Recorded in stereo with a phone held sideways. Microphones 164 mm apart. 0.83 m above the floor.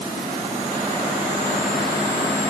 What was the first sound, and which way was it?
Only background noise.